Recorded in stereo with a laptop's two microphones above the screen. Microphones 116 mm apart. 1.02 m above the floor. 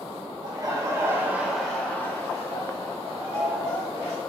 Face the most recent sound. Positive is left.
turn(degrees=60)  # may be behind; listen again after turning